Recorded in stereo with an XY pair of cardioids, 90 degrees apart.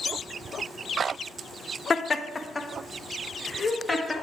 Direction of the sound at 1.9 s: 35° left.